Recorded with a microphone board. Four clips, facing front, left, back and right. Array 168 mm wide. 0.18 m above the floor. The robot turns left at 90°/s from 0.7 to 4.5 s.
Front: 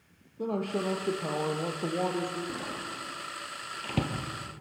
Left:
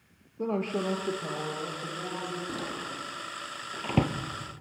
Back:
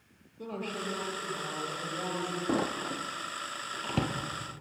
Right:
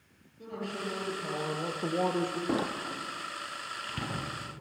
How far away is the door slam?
About 2.5 m.